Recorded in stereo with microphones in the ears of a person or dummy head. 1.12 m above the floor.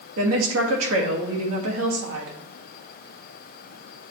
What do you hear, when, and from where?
0.2 s a woman speaking: 75° right (ahead or behind), 1.7 m